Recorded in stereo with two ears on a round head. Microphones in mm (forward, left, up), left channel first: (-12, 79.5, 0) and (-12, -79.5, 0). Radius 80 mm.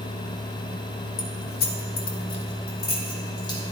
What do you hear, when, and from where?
1.2 s keys jangling: 75° left (ahead or behind), 1.6 m; by 3.6 s 25° left (ahead or behind), 3.5 m